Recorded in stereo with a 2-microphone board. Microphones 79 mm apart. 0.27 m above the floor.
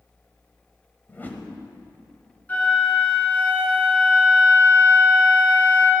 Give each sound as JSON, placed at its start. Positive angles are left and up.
{"t": 1.1, "sound": "a whoosh", "side_deg": 25, "distance_m": 1.2}
{"t": 2.5, "sound": "a flute", "side_deg": 20, "distance_m": 3.0}